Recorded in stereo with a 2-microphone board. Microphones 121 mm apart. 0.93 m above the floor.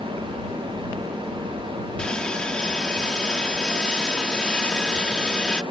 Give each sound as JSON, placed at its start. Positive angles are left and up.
{"t": 2.0, "sound": "sawing", "side_deg": 5}